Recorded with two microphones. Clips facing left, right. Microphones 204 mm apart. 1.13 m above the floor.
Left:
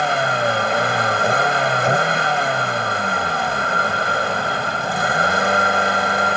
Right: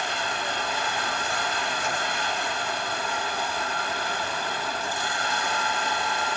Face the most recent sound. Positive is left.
turn(degrees=75)  # may be behind; listen again after turning